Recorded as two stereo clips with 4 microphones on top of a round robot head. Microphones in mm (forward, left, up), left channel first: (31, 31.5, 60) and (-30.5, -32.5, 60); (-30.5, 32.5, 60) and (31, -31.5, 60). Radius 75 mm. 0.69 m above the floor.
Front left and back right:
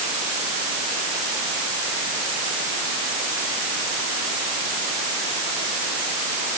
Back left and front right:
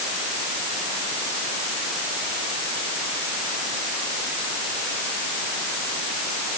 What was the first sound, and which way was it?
Only background noise.